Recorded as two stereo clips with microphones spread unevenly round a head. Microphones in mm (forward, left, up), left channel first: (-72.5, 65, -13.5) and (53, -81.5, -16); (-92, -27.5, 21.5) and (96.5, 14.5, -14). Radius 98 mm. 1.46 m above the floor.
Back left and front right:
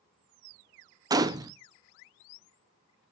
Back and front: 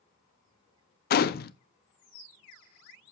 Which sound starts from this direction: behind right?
A gunshot, at 1.1 s.